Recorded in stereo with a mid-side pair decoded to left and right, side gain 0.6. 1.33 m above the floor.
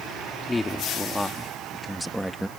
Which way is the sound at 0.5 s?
20° left.